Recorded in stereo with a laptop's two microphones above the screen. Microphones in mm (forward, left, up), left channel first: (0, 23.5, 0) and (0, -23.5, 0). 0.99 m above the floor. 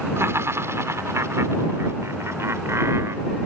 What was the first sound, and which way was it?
Laughter, 65° right (ahead or behind).